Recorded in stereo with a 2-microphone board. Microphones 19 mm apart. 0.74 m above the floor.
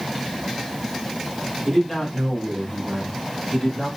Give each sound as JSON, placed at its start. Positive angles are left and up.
{"t": 1.6, "sound": "a man speaking", "side_deg": 5, "distance_m": 1.8}